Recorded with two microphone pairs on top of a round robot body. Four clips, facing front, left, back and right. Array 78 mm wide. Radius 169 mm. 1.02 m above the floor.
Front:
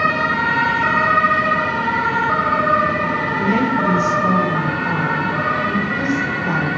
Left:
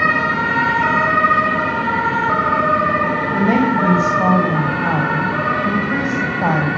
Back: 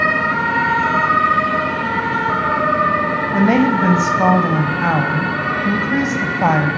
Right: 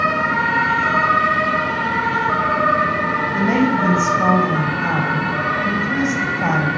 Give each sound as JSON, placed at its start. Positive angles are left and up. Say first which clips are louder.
{"t": 3.3, "sound": "a woman speaking", "louder": "left 2 dB, back 5 dB", "azimuth_deg": 160, "distance_m": 6.0}